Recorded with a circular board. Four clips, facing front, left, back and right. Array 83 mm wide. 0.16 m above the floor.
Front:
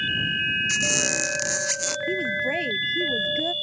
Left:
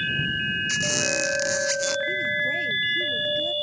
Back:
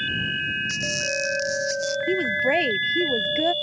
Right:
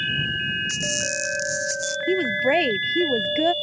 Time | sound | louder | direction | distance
0.7 | a squeak | left 2 dB, front 1 dB | 45° left | ?
2.1 | a woman speaking | right 6 dB, back 4 dB | 120° right | ?